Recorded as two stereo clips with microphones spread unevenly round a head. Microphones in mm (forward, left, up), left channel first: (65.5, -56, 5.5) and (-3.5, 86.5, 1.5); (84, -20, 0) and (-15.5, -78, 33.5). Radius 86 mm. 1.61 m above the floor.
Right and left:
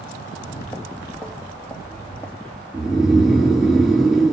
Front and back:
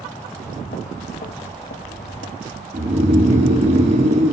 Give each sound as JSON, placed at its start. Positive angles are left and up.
{"t": 0.3, "sound": "footsteps", "azimuth_deg": 15, "distance_m": 2.5}
{"t": 2.7, "sound": "snoring", "azimuth_deg": -155, "distance_m": 1.9}